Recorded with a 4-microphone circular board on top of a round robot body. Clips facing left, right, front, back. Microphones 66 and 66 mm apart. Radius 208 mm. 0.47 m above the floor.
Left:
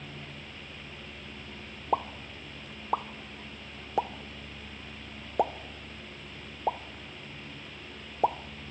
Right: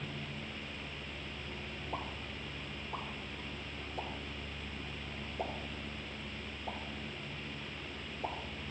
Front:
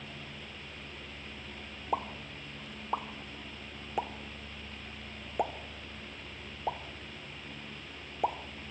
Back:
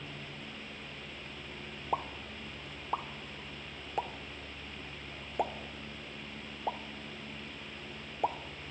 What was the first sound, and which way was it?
A pop, 85° left.